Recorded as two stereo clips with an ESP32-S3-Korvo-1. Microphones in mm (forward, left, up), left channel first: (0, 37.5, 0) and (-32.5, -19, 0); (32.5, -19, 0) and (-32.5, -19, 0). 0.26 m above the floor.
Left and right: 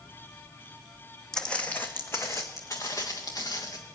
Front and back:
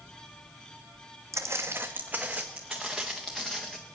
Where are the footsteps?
140° left, 1.1 m; by 3.8 s 85° left, 2.5 m.